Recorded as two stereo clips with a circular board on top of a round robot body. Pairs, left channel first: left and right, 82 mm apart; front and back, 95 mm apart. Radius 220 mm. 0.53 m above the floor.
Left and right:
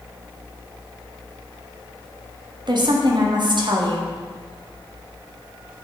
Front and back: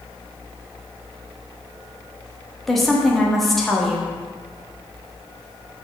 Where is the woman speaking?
90° right, 1.5 m.